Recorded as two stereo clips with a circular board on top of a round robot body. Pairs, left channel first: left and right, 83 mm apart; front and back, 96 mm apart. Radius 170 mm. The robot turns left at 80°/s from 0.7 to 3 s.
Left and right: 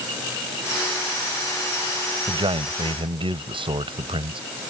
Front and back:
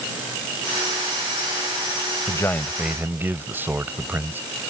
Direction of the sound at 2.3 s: 50° right.